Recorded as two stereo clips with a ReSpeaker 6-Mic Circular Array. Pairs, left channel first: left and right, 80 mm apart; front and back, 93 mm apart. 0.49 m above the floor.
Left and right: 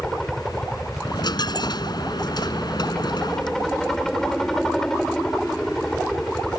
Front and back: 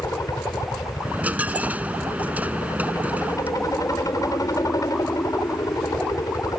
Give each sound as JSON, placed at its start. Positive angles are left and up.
{"t": 0.0, "sound": "a helicopter", "azimuth_deg": 10}
{"t": 1.0, "sound": "a dropped coin", "azimuth_deg": 110}